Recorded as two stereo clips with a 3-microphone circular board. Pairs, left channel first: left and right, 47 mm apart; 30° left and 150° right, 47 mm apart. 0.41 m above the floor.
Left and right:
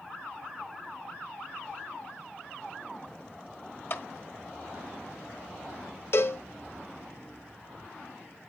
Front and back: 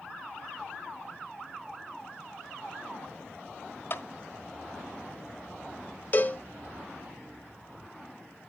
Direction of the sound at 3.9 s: 65° left.